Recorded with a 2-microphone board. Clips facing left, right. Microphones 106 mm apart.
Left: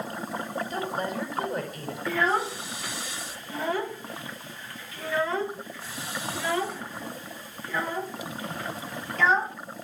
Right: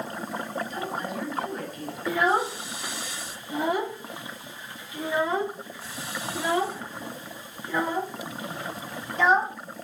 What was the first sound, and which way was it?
A woman speaking, 40° left (ahead or behind).